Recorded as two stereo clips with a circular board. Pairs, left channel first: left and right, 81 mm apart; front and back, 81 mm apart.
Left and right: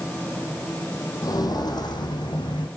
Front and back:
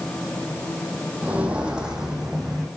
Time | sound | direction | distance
1.2 | footsteps | 110° left | 1.9 m